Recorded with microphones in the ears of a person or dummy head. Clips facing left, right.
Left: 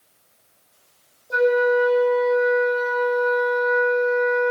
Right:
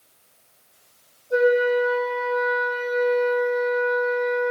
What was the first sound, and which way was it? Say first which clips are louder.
A flute: even; 80° left.